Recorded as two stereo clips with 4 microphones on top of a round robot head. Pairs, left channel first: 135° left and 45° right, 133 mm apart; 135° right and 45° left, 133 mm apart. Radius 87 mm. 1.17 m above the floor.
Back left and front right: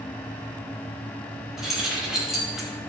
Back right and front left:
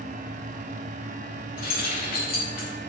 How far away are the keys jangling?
About 5 m.